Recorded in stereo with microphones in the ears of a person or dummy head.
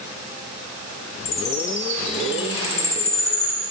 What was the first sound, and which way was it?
A chime, 35° left (ahead or behind).